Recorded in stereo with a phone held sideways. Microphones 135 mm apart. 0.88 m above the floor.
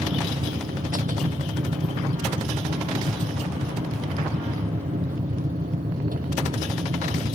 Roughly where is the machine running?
Right.